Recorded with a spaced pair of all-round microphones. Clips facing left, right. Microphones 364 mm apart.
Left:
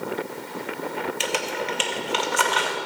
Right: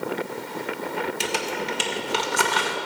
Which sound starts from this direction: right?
Crumpling, at 1.2 s.